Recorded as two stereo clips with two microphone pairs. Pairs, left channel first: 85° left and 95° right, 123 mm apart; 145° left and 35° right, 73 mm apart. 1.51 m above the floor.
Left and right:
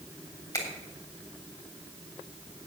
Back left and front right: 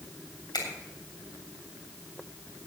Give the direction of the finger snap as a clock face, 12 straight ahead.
7 o'clock.